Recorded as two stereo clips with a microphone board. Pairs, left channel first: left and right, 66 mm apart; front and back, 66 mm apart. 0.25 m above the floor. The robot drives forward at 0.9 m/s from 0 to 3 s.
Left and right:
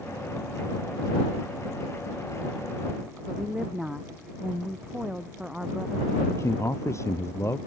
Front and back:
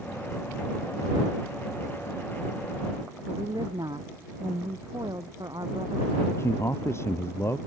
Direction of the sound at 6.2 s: 50° left.